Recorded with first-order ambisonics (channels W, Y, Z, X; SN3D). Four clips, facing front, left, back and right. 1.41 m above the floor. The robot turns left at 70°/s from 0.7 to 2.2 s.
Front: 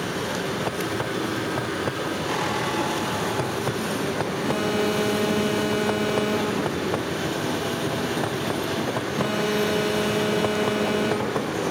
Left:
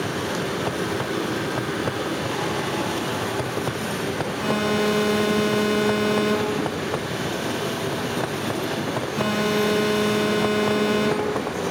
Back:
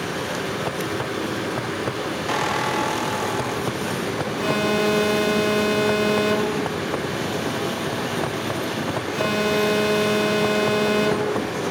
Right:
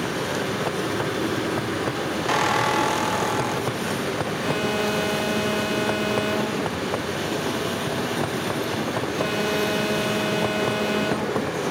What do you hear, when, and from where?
2.3 s a squeak: 115° right, 1.0 m
4.4 s an alarm: 175° left, 4.5 m